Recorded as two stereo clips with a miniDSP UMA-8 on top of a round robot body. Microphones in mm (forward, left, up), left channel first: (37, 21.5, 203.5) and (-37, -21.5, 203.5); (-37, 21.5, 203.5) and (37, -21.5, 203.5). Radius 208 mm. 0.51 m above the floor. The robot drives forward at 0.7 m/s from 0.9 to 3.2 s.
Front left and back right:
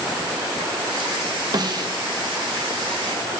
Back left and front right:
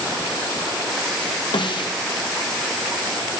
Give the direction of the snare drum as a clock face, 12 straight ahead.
6 o'clock.